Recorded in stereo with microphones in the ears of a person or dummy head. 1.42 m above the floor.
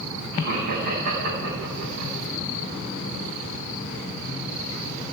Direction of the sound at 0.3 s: 80° right.